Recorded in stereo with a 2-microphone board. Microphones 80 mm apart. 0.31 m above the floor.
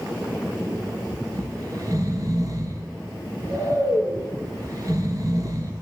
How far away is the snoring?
About 2.5 m.